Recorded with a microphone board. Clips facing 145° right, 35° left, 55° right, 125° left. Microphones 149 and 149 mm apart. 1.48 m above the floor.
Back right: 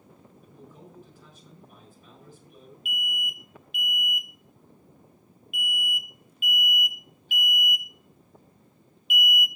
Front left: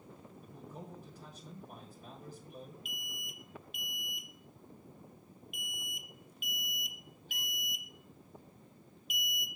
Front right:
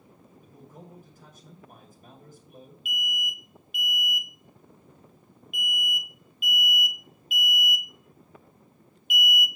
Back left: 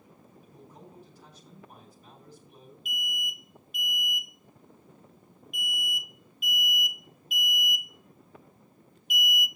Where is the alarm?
80° left, 1.2 m.